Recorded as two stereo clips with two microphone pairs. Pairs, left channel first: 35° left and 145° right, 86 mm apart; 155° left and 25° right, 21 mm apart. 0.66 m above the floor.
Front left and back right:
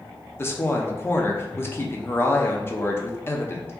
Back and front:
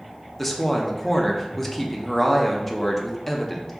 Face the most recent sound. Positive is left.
turn(degrees=75)